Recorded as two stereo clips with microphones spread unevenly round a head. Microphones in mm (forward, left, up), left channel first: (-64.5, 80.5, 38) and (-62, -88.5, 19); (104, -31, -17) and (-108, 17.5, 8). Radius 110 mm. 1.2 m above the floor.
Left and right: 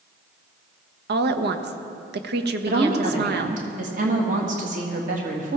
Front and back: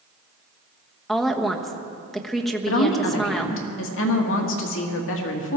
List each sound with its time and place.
1.1 s a woman speaking: 100° right, 1.1 m
2.7 s a woman speaking: 40° right, 1.9 m